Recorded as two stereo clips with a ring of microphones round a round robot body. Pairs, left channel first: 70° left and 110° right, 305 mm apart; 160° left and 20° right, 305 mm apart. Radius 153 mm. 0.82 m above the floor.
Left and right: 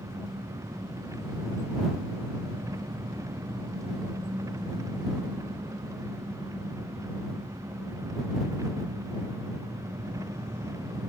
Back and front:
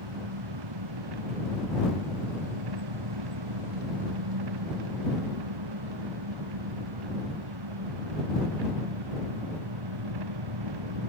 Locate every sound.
0.0 s an engine running: 30° right